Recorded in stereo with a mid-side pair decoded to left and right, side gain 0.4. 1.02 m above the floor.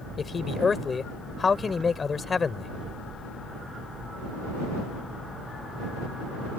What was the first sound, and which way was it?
A man speaking, 40° left.